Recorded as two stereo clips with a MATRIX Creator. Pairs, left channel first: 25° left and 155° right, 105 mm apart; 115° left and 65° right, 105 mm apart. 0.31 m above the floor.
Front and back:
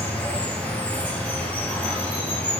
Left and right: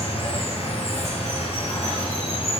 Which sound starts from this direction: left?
Running water, at 0.0 s.